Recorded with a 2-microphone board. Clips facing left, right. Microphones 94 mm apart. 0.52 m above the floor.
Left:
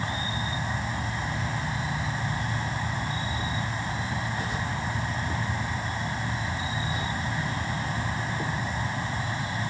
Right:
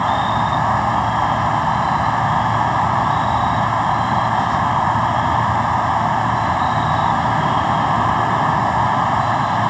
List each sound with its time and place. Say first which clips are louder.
0.0 s an insect: right 15 dB; 65° right (ahead or behind)